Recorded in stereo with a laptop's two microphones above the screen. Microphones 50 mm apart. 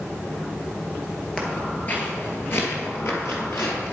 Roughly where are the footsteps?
Centre.